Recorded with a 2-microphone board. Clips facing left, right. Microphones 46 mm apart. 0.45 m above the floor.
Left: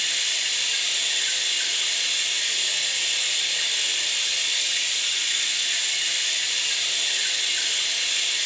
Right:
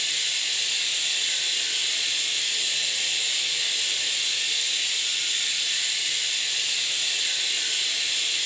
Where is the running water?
60° left (ahead or behind), 1.1 m.